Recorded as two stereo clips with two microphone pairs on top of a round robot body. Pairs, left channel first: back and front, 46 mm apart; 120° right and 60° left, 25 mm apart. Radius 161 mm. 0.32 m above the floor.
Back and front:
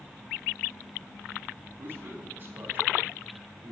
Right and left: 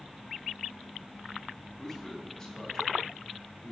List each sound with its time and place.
1.8 s a man speaking: 40° right, 4 m; by 3.7 s 65° right, 4 m